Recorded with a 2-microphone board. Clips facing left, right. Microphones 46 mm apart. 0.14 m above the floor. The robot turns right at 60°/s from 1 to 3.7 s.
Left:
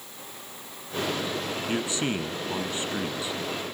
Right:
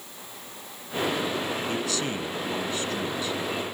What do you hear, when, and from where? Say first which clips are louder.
1.7 s a man speaking: left 1 dB; 20° left (ahead or behind), 1.1 m; by 3.4 s 15° left (ahead or behind), 1.1 m